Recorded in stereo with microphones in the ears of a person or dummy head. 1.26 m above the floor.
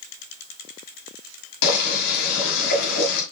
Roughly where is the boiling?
Left.